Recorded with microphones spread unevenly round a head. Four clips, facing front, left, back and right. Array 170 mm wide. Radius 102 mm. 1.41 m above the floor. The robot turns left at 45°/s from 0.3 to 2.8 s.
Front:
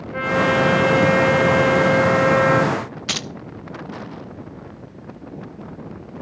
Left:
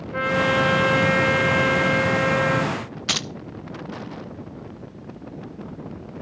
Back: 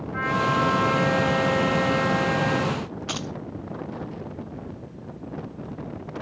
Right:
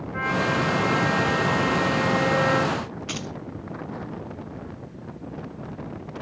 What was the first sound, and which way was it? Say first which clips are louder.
A trumpet: left 4 dB, front 5 dB; 90° left.